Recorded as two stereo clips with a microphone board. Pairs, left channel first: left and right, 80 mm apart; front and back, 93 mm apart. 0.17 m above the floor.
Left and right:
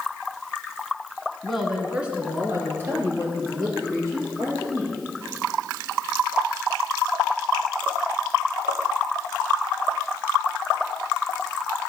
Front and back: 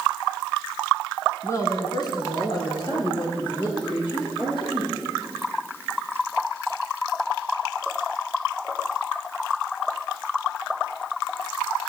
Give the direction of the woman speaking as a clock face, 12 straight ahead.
12 o'clock.